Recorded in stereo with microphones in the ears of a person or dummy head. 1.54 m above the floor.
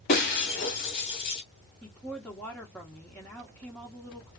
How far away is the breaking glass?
About 1.2 m.